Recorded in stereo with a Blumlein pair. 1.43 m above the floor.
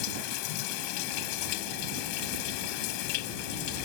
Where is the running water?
45° left.